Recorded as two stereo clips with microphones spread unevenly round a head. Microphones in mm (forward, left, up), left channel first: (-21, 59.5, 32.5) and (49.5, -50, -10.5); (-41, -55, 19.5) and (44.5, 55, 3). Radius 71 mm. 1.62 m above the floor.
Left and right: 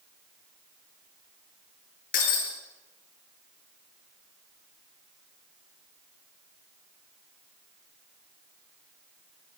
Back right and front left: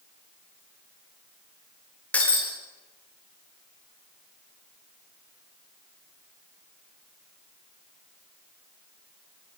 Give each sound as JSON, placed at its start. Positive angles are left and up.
{"t": 2.1, "sound": "breaking glass", "azimuth_deg": 150, "distance_m": 9.5}